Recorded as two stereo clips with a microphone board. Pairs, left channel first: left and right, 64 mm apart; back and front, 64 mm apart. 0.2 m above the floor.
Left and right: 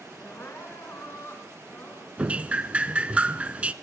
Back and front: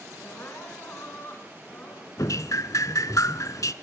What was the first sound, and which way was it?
Crying, 130° left.